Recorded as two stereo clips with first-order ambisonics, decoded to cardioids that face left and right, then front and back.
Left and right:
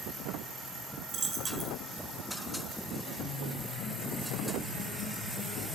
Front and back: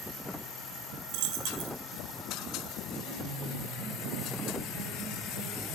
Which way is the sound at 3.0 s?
130° left.